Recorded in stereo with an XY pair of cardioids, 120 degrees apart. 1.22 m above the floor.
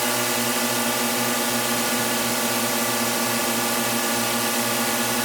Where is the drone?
5° right.